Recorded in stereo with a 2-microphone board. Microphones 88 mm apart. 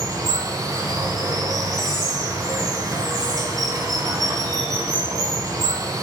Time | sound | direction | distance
0.0 | running water | 45° right (ahead or behind) | 2.0 m